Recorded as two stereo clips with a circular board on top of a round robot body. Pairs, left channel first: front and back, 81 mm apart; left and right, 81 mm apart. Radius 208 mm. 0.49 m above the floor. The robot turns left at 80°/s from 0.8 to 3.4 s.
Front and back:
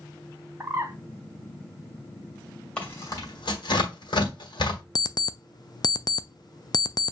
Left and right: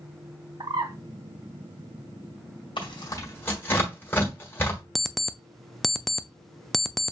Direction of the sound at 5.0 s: Straight ahead.